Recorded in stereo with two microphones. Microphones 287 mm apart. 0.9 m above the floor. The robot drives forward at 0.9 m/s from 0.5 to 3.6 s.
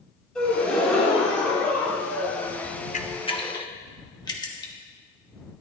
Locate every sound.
0.3 s a gasp: 5° left (ahead or behind), 3 m; by 2.7 s 10° left (ahead or behind), 1.1 m
2.9 s a camera shutter: 25° left (ahead or behind), 0.6 m; by 4.7 s 15° left (ahead or behind), 1.1 m